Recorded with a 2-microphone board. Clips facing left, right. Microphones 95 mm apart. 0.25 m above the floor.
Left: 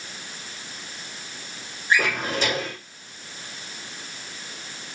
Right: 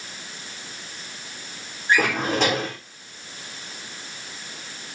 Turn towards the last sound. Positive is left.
turn(degrees=-75)  # may be behind; listen again after turning